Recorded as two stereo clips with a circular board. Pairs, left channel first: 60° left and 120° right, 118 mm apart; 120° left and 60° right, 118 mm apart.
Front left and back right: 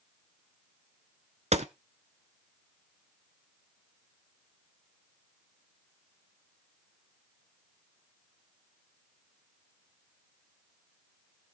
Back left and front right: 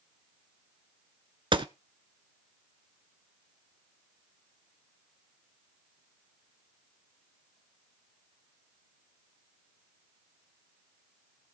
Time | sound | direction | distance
1.5 | a gunshot | 105° right | 0.8 m